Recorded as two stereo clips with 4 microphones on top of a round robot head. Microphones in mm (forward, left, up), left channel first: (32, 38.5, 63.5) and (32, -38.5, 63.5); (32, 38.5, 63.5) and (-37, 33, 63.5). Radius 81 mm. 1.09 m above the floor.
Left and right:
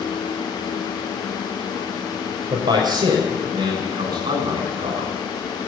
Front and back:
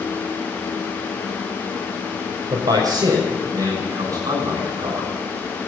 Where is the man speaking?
130° right, 6 m; by 5.2 s 120° right, 7 m.